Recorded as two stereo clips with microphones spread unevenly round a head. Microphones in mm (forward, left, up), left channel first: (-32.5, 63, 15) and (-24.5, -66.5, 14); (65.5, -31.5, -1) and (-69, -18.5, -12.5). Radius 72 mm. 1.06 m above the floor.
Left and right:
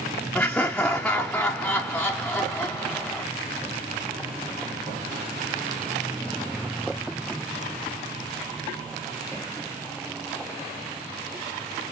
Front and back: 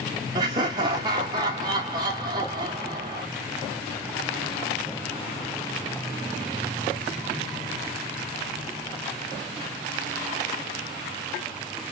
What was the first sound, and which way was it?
Laughter, 175° left.